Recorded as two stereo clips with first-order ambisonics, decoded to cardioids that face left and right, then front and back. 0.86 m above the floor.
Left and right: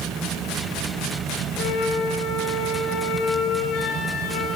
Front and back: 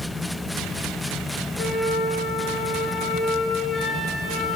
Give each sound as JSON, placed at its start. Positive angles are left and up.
{"t": 1.6, "sound": "a flute", "azimuth_deg": 55, "distance_m": 8.5}